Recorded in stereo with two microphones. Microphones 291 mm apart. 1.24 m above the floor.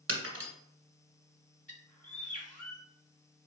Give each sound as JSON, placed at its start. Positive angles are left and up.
{"t": 0.1, "sound": "breaking glass", "side_deg": -45, "distance_m": 1.6}
{"t": 1.7, "sound": "a bird", "side_deg": 25, "distance_m": 1.0}